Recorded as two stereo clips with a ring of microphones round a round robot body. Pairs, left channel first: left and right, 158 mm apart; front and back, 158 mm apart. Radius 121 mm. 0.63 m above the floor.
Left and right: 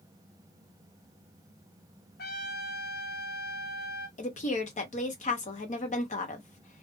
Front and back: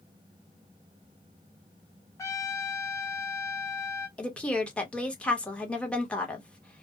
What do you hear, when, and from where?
2.2 s a trumpet: 70° left, 0.6 m
4.2 s a woman speaking: 80° left, 1.1 m